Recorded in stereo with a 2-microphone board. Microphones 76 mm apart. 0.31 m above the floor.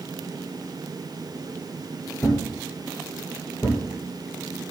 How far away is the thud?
About 2.5 m.